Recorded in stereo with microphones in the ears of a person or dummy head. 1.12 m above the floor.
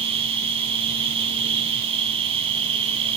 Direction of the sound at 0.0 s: 25° right (ahead or behind).